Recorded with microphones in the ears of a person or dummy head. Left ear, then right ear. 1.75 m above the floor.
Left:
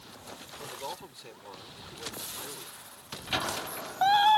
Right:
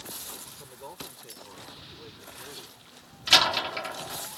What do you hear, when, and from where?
0.6 s a man speaking: 25° left (ahead or behind); by 2.9 s 10° left (ahead or behind)
3.3 s a door slam: 55° right (ahead or behind)